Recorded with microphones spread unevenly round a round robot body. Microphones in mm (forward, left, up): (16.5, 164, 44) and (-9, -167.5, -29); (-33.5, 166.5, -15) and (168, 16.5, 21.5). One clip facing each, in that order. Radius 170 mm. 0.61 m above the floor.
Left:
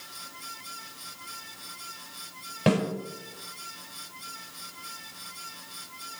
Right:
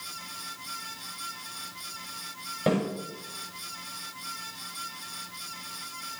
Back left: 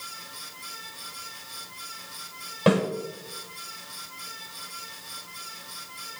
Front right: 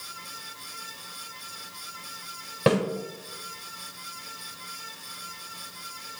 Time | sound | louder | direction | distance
2.7 | a snare drum | left 2 dB, back left 1 dB | 25° left | 5.5 m